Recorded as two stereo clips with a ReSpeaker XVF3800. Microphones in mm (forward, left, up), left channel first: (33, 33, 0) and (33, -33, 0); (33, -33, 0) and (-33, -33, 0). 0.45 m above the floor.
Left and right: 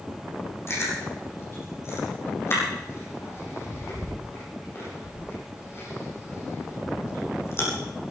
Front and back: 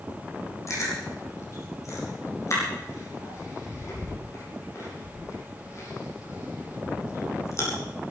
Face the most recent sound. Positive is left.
turn(degrees=40)